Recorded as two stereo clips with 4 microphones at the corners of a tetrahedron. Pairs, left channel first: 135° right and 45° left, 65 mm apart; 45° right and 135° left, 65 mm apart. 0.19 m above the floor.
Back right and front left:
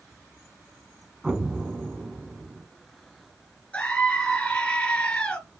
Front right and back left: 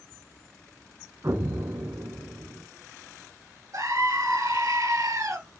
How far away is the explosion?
About 1.4 m.